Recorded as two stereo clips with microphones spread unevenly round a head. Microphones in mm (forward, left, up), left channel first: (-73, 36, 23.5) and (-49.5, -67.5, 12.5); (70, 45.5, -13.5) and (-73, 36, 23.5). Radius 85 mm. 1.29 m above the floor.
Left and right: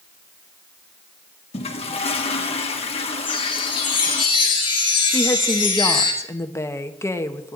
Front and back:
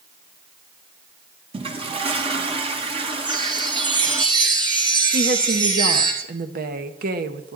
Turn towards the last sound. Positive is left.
turn(degrees=165)